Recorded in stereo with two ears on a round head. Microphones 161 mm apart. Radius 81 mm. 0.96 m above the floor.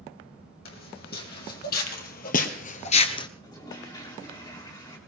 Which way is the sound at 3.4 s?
25° left (ahead or behind).